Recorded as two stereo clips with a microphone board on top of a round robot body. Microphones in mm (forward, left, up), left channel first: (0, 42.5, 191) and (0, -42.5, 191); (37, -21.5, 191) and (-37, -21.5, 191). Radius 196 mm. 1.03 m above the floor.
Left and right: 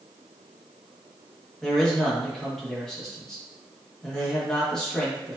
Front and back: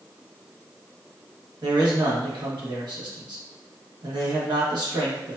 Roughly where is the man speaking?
Behind.